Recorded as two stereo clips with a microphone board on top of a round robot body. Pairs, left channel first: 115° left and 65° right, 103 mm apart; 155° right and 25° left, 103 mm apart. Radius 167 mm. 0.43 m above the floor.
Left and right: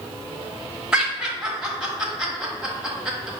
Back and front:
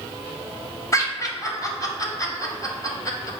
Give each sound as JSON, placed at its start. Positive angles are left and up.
{"t": 0.9, "sound": "laughter", "azimuth_deg": -145, "distance_m": 1.4}